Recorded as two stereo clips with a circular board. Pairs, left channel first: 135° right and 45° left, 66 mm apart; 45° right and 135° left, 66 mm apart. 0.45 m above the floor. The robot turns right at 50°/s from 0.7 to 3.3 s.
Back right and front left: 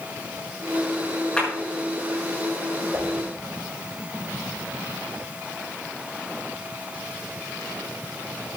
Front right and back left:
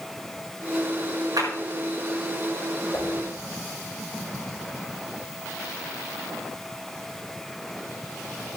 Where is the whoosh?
Straight ahead, 2.5 m; by 3.1 s 10° left, 2.5 m.